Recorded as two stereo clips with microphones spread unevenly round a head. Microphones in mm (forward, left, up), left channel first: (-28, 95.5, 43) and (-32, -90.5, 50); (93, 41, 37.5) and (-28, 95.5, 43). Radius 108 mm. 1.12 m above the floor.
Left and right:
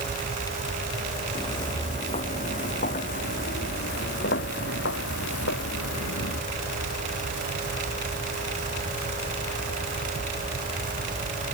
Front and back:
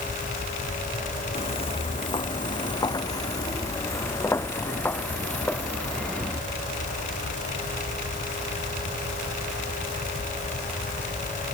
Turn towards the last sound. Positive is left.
turn(degrees=60)